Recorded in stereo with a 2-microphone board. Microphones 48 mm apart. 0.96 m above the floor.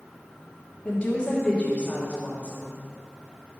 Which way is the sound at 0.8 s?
25° left (ahead or behind).